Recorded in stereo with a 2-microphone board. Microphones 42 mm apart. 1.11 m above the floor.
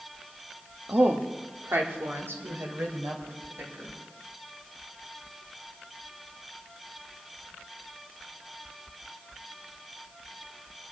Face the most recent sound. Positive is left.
turn(degrees=-85)